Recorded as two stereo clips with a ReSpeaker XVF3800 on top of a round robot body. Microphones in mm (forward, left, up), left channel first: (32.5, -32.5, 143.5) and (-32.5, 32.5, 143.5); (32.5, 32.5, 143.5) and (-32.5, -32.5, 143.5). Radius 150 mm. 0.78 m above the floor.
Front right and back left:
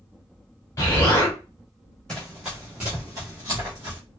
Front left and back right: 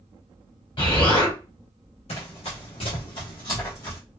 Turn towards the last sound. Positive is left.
turn(degrees=110)